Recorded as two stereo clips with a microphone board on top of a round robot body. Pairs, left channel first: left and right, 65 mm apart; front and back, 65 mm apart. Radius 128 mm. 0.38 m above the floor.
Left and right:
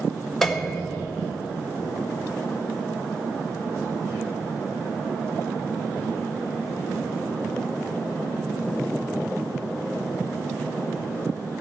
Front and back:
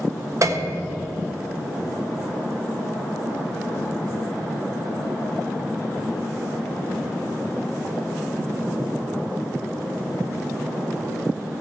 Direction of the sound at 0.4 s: 175° left.